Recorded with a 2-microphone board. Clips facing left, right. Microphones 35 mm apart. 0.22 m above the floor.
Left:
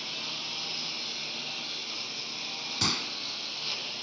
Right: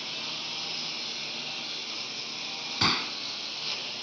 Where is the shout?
I don't hear a shout.